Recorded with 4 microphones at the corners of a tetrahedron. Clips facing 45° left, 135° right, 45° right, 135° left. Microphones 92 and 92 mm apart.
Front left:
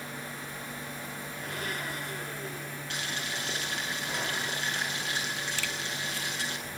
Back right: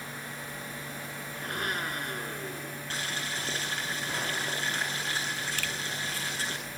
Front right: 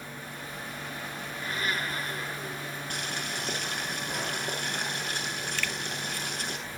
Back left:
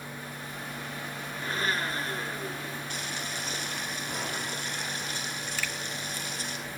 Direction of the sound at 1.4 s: 170° right.